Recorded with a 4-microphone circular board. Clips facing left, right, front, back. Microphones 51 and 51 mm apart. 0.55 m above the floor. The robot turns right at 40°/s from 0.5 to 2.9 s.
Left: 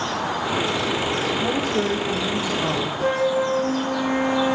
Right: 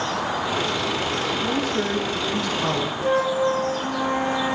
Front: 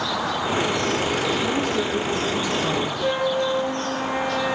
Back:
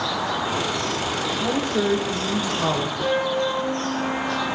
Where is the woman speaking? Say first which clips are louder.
Left 1 dB, even; 125° left, 3 m; by 2.9 s 175° right, 3 m.